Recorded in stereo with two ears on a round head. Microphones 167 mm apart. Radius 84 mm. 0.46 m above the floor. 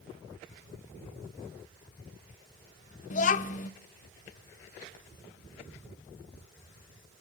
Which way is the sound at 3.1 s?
40° left (ahead or behind).